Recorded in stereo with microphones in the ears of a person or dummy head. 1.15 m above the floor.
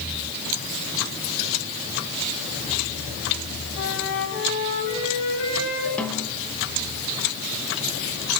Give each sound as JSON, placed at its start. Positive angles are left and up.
{"t": 3.8, "sound": "a flute", "side_deg": 80, "distance_m": 9.5}
{"t": 6.0, "sound": "a snare drum", "side_deg": 5, "distance_m": 3.0}